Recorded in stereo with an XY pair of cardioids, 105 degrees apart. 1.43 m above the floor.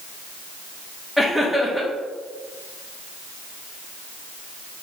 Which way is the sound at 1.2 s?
Straight ahead.